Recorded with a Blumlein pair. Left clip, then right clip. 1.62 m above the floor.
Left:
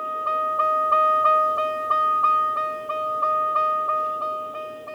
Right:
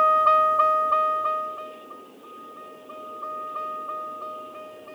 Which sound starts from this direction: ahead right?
A vehicle, at 0.0 s.